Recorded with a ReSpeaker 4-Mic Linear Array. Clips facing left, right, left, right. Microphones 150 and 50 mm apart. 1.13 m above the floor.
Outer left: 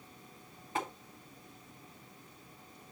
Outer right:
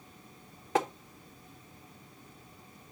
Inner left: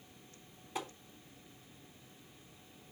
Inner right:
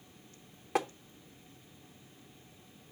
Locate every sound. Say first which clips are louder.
0.8 s tapping: outer right 8 dB, inner right 9 dB; 85° right, 0.9 m